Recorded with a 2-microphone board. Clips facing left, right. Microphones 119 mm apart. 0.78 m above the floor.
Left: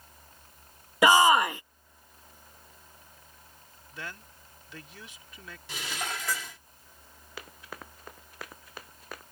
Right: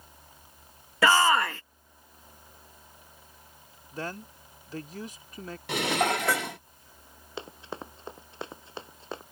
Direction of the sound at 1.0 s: 15° left (ahead or behind).